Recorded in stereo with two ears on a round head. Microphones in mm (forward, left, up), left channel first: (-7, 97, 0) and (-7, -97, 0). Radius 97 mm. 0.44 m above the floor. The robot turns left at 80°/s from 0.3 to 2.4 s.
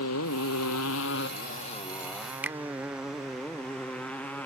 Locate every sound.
0.0 s a motorcycle: 90° left; by 4.5 s 10° left (ahead or behind)
2.4 s a finger snap: 10° right (ahead or behind)